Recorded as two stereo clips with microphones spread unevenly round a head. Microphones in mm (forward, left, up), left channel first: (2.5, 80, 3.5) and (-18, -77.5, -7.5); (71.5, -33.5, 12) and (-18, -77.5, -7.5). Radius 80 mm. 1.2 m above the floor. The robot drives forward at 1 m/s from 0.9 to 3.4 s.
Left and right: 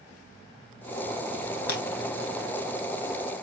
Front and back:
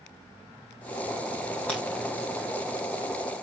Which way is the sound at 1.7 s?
105° left.